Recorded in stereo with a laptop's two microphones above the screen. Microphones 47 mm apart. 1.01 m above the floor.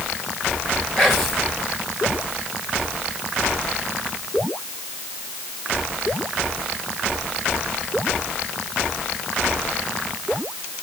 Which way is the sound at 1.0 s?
5° left (ahead or behind).